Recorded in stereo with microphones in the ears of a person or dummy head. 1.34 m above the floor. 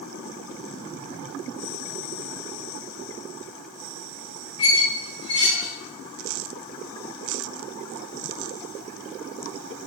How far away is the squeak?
About 0.6 m.